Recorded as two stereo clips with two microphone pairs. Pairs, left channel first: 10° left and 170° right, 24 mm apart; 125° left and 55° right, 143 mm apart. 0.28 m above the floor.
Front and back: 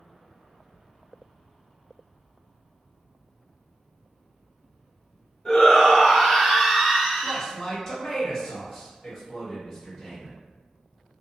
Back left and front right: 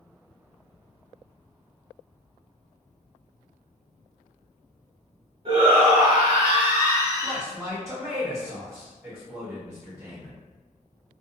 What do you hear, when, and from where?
5.5 s a shout: 45° right, 1.2 m; by 7.4 s 115° right, 1.6 m
7.2 s a man speaking: 50° right, 0.9 m